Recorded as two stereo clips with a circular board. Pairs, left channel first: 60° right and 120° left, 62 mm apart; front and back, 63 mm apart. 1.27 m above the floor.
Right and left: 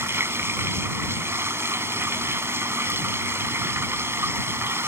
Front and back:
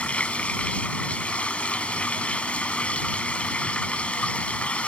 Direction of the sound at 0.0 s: 70° left.